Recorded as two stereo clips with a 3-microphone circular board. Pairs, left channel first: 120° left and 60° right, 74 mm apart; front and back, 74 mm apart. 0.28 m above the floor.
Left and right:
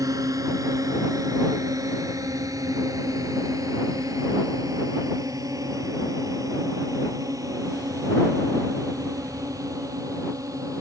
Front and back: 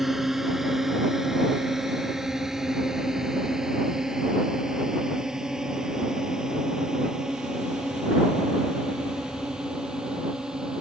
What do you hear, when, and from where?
0.0 s a drone: 95° right; by 10.8 s 100° right